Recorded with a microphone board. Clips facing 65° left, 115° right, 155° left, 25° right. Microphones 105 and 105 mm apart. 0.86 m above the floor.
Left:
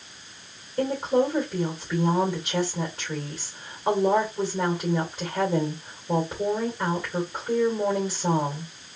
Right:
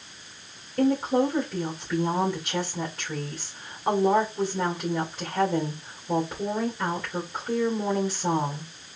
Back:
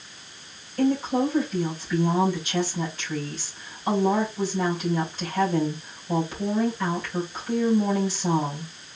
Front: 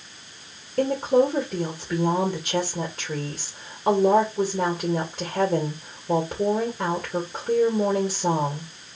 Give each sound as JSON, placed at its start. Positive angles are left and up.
{"t": 0.8, "sound": "a woman speaking", "azimuth_deg": -25, "distance_m": 2.0}